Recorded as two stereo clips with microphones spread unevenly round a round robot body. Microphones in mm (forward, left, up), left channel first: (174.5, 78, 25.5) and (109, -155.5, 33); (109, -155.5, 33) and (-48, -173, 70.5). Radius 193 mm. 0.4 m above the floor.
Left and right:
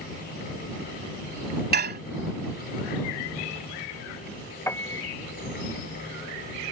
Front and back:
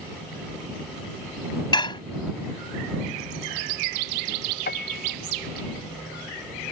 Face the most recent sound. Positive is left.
turn(degrees=-5)